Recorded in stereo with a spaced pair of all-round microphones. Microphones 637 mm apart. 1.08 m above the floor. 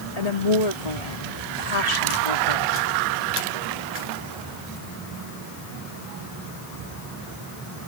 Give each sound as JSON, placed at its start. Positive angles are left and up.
{"t": 0.2, "sound": "a woman speaking", "side_deg": 70}